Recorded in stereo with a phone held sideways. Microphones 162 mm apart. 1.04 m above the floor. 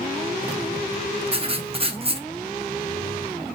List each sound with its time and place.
1.3 s writing: 35° right (ahead or behind), 0.6 m